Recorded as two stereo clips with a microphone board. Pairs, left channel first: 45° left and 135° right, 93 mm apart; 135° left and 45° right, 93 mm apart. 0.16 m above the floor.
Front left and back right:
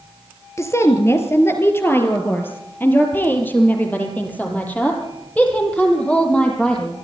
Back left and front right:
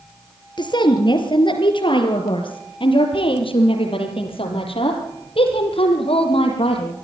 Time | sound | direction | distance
0.6 | a woman speaking | 100° left | 3.5 m